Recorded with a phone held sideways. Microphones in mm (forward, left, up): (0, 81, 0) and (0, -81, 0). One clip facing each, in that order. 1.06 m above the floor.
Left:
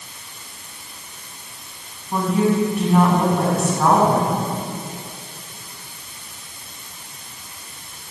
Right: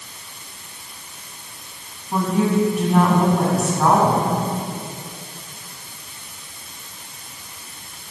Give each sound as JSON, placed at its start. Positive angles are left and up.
{"t": 2.1, "sound": "a woman speaking", "side_deg": 0, "distance_m": 9.0}